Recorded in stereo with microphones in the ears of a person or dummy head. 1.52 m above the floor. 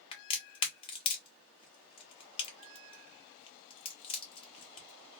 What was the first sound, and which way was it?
A crack, 25° left (ahead or behind).